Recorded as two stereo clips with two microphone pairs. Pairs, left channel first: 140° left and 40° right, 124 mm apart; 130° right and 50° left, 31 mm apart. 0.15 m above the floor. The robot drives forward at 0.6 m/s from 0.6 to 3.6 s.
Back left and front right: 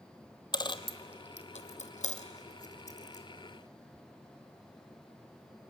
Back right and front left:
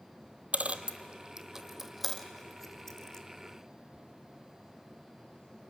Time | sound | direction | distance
0.5 | a dropped coin | 90° left | 0.8 m